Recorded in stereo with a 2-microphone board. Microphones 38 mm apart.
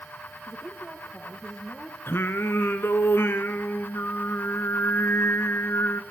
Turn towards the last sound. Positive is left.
turn(degrees=75)  # may be behind; listen again after turning